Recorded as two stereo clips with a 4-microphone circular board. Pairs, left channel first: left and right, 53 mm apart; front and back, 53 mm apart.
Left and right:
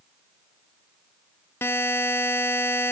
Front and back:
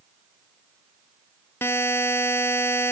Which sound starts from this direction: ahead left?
A buzzer, at 1.6 s.